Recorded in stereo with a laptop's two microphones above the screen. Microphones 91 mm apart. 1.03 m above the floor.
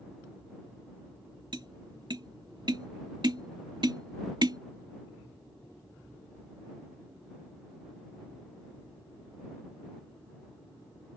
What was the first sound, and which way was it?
Tapping, 55° right (ahead or behind).